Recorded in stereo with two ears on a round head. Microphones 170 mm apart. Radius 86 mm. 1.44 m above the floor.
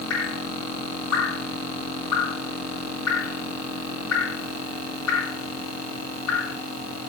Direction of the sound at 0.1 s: 80° left.